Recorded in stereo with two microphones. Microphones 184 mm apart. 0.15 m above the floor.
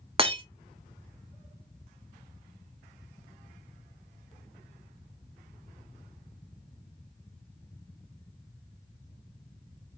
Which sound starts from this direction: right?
Breaking glass, at 0.2 s.